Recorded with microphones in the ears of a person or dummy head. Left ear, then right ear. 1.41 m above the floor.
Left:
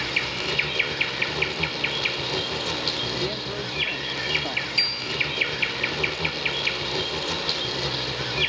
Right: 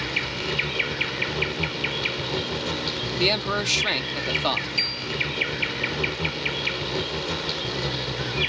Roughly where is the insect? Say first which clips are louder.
Left 1 dB; left.